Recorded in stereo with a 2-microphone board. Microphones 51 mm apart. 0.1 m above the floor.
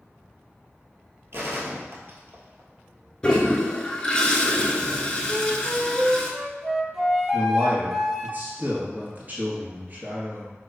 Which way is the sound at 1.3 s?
55° right (ahead or behind).